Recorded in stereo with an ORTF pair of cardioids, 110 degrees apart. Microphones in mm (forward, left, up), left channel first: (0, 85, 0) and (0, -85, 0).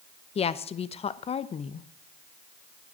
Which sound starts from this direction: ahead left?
A woman speaking, at 0.3 s.